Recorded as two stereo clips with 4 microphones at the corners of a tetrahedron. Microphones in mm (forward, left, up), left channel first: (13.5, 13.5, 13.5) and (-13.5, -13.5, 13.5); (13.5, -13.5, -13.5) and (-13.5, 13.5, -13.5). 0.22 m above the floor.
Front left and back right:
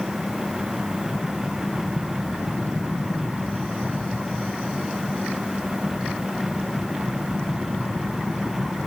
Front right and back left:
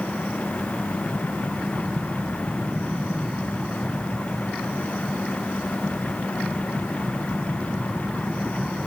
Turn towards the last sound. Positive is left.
No sound to turn to.